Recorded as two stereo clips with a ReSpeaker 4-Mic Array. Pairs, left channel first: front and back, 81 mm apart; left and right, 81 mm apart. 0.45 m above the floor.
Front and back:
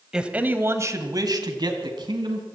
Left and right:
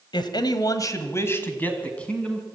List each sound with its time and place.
0.1 s a man speaking: 100° left, 2.0 m; by 2.5 s 170° left, 3.5 m